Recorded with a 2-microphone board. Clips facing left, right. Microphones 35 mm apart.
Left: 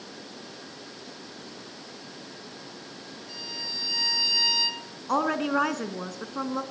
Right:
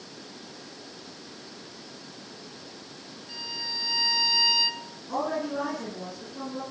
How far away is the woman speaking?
About 3 m.